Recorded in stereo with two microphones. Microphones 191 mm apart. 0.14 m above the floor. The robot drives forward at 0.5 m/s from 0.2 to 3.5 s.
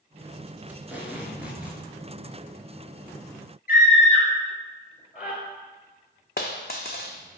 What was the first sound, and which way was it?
Tape being pulled, 10° right (ahead or behind).